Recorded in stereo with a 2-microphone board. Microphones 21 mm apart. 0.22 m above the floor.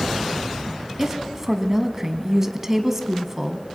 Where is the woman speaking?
20° right (ahead or behind), 1.4 m.